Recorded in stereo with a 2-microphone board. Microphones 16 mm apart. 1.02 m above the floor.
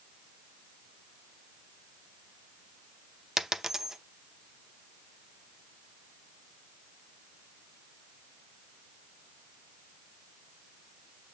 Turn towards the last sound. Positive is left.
turn(degrees=-30)  # may be behind; listen again after turning